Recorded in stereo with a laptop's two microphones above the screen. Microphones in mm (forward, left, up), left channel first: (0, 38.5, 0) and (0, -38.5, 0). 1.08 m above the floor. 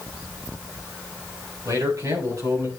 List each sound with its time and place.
1.6 s a man speaking: 50° right (ahead or behind), 4.5 m; by 2.7 s 45° right (ahead or behind), 5 m